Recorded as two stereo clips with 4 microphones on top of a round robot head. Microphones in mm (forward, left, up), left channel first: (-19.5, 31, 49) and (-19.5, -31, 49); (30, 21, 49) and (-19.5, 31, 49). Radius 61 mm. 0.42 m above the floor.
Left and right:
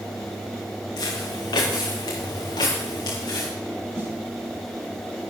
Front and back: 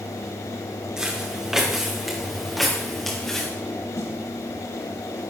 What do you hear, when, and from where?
1.0 s footsteps: 90° left, 5.5 m; by 3.5 s 70° left, 5.5 m
4.0 s a snare drum: 30° right, 6 m